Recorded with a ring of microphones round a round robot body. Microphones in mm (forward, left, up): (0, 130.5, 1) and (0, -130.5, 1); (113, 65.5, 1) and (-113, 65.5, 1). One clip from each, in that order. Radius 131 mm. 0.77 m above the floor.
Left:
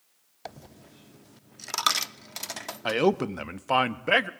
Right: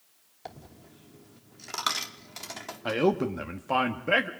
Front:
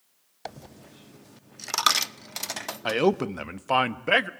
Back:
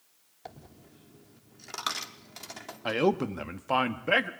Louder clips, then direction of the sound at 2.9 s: Left 2 dB, front 3 dB; 45° left.